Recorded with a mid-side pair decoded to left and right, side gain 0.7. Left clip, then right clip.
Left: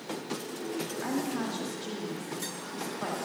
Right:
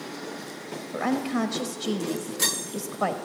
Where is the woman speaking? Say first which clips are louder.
Right 9 dB; 70° right, 1.1 m.